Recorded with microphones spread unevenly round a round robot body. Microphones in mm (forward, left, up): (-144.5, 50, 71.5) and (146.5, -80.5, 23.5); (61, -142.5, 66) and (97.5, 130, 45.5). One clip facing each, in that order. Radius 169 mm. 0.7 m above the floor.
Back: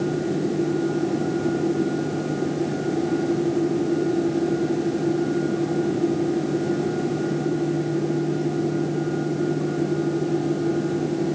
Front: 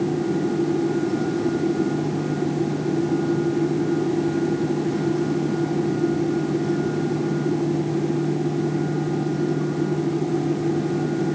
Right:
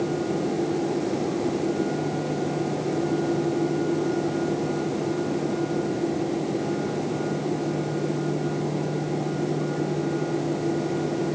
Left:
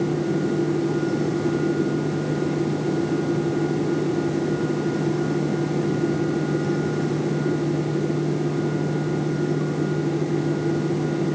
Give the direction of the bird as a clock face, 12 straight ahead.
No bird in this recording.